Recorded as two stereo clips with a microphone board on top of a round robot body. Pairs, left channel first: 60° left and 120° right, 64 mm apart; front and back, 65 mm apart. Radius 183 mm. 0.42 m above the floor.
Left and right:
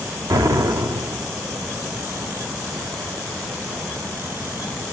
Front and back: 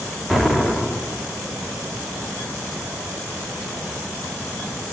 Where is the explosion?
95° right, 1.7 m.